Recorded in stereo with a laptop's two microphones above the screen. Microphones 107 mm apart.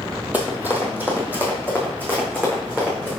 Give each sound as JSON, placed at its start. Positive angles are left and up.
{"t": 0.3, "sound": "running footsteps", "side_deg": -15, "distance_m": 1.4}